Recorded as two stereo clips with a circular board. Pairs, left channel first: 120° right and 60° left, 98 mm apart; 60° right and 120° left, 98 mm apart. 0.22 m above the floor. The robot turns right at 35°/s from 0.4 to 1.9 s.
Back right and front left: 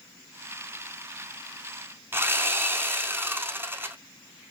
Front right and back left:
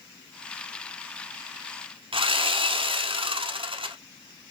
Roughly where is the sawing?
Behind left.